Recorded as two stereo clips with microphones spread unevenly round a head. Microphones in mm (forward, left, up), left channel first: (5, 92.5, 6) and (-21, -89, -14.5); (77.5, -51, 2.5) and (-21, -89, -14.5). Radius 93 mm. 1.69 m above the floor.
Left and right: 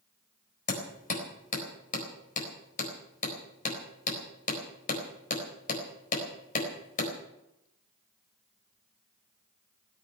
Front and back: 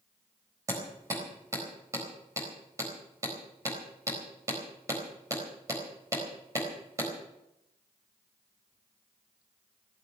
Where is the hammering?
125° left, 4 m.